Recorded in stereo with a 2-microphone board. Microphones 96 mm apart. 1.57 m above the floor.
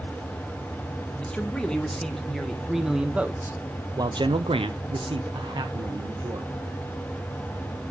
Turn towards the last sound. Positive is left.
turn(degrees=-45)  # may be behind; listen again after turning